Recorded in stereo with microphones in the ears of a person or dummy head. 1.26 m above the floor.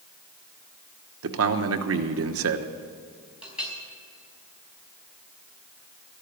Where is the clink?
10° right (ahead or behind), 5 m.